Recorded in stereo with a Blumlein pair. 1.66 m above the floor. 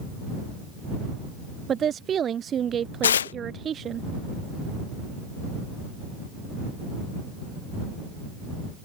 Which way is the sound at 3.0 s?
65° left.